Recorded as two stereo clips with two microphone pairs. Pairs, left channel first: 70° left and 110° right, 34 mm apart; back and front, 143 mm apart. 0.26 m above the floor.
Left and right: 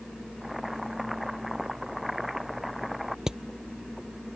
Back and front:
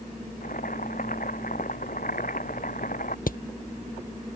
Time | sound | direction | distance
0.4 | boiling | 160° left | ?
3.3 | hammering | 175° left | ?